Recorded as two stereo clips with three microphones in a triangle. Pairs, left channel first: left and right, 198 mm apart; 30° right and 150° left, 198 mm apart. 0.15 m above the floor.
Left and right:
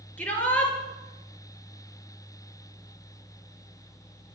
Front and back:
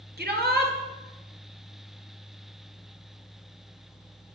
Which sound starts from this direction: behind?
A shout, at 0.2 s.